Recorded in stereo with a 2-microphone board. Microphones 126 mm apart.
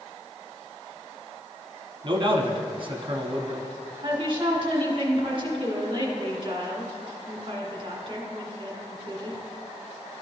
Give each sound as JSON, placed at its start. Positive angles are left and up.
{"t": 2.0, "sound": "a man speaking", "side_deg": -40, "distance_m": 0.9}
{"t": 4.0, "sound": "a woman speaking", "side_deg": -40, "distance_m": 1.7}